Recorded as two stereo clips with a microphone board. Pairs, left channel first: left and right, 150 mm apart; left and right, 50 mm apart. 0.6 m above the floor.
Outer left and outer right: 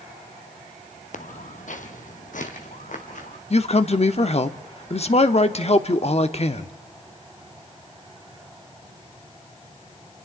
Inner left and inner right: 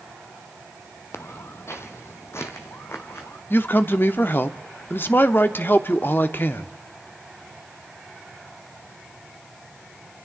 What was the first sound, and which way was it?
Footsteps, 55° left (ahead or behind).